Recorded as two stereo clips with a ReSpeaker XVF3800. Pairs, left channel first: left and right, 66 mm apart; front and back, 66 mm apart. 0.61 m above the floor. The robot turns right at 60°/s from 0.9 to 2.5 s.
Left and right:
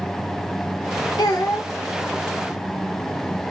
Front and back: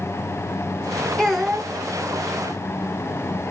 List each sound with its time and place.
1.2 s a child speaking: 80° left, 0.9 m; by 1.7 s 110° left, 0.9 m